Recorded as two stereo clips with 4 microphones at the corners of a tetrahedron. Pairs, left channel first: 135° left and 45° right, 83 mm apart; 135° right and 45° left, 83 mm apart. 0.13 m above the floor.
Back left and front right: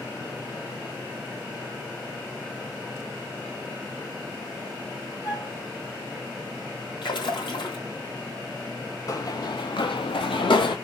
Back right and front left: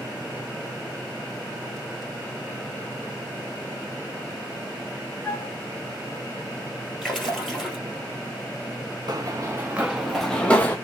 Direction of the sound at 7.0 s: 140° left.